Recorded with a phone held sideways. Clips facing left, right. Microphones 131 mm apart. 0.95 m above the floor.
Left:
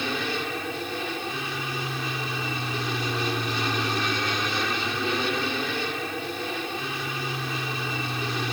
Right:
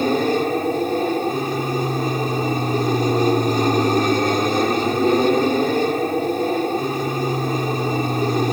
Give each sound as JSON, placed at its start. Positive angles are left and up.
{"t": 0.0, "sound": "an aircraft", "side_deg": -45}